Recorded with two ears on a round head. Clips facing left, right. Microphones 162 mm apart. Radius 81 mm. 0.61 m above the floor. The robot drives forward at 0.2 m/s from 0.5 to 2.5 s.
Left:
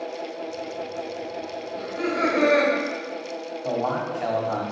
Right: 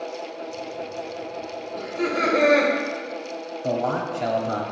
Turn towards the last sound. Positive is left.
turn(degrees=-40)  # may be behind; listen again after turning